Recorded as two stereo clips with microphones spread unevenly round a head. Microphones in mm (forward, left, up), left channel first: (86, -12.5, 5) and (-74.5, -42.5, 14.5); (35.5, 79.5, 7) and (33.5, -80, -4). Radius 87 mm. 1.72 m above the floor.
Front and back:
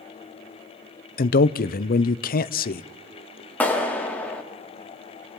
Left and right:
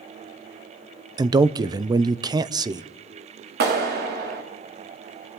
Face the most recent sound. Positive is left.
turn(degrees=-70)